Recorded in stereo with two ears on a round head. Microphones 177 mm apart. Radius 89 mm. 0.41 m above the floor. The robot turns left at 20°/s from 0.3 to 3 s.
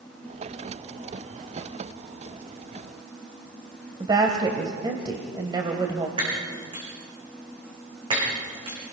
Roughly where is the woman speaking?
Right.